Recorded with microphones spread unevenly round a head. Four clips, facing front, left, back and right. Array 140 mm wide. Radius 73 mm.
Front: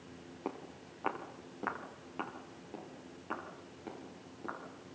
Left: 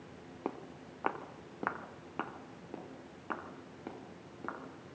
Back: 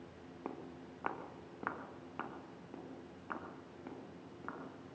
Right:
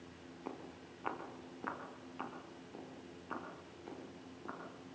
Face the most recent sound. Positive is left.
turn(degrees=75)